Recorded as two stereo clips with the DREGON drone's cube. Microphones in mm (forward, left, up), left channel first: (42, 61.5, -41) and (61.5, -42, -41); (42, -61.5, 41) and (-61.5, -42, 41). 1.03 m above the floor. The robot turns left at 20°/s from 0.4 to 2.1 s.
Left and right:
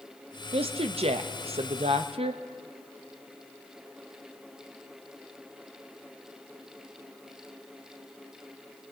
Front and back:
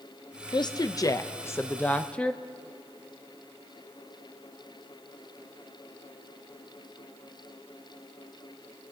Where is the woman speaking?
60° right, 0.6 m; by 2.4 s 90° right, 0.6 m.